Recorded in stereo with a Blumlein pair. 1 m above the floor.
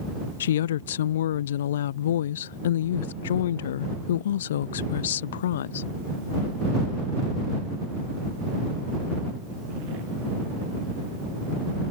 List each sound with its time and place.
0.4 s a woman speaking: 60° left